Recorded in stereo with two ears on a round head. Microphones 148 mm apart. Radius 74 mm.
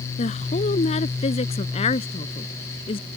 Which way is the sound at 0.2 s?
40° left (ahead or behind).